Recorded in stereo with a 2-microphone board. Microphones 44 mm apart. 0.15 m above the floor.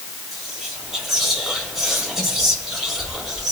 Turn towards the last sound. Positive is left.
turn(degrees=-5)  # may be behind; listen again after turning